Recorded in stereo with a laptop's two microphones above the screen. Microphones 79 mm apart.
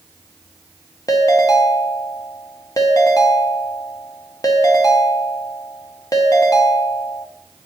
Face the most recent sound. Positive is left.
turn(degrees=50)  # may be behind; listen again after turning